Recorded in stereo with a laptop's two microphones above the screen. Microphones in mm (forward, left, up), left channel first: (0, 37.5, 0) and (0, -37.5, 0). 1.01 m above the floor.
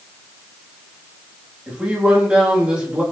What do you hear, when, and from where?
1.7 s a man speaking: 15° right (ahead or behind), 1.9 m